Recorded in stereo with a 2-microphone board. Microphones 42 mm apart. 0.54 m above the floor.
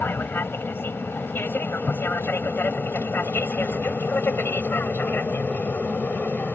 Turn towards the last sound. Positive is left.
turn(degrees=50)  # may be behind; listen again after turning